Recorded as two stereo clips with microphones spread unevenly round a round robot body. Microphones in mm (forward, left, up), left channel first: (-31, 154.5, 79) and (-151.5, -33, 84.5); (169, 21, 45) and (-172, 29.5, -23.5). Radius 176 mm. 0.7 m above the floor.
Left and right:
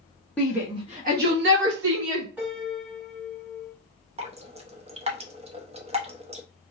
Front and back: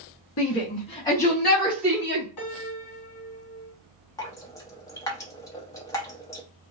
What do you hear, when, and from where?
0.4 s a shout: 20° right, 0.8 m; by 2.2 s 105° right, 1.9 m
2.4 s a piano: 35° right, 1.4 m
4.2 s dripping: 95° right, 0.6 m